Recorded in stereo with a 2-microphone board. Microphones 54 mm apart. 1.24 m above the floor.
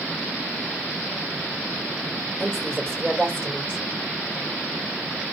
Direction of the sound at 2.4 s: 10° right (ahead or behind).